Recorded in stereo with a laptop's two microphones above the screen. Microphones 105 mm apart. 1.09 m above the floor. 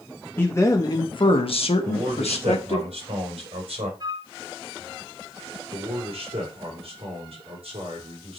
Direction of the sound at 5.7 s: 70° right (ahead or behind).